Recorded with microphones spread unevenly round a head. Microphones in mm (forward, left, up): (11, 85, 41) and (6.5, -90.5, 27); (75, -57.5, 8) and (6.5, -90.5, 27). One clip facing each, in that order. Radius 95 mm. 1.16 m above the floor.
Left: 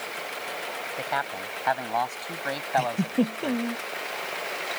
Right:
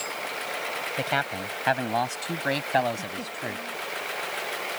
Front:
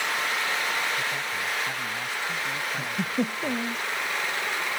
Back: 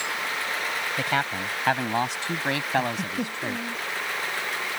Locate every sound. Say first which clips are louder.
1.0 s a man speaking: right 3 dB, back 3 dB; 155° right
2.8 s a giggle: left 4 dB, back 1 dB; 90° left